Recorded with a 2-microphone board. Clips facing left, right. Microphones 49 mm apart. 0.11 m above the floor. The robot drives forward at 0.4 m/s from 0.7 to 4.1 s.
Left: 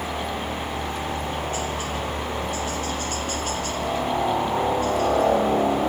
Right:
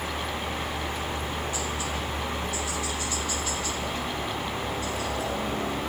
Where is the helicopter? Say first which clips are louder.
Left 3 dB; 45° left (ahead or behind).